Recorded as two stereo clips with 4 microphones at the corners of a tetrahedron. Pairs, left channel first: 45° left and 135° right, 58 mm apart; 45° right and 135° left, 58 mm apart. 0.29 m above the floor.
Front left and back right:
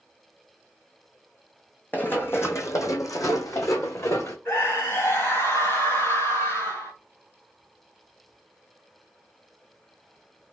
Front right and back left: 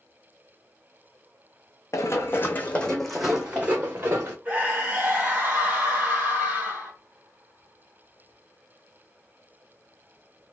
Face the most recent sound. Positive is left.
turn(degrees=70)